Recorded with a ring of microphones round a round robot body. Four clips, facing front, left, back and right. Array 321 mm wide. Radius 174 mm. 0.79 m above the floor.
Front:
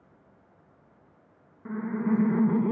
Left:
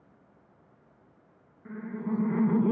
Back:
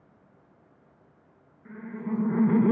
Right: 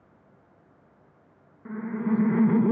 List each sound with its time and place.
1.6 s laughter: 30° right, 0.9 m; by 2.7 s 165° right, 0.7 m